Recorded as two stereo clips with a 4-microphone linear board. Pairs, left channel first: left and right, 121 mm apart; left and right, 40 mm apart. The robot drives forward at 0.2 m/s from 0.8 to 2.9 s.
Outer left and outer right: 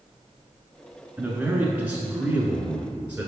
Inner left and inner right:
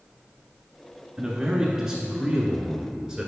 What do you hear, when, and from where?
1.2 s a man speaking: 10° right (ahead or behind), 1.1 m